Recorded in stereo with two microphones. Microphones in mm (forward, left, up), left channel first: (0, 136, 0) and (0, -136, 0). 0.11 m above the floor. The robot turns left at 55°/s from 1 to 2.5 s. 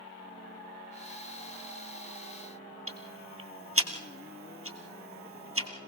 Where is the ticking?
55° right (ahead or behind), 2 m.